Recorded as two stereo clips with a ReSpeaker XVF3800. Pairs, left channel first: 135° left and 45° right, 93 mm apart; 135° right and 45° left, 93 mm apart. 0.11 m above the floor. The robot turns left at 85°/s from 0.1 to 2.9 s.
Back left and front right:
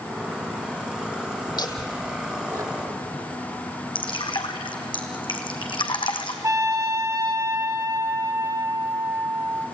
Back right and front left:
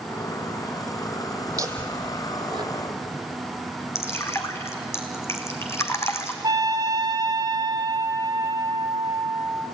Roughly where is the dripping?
Behind.